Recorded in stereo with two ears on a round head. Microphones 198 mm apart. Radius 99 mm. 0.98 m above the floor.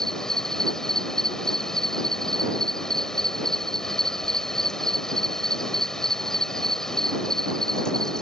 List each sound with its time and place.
0.0 s an insect: centre (ahead or behind)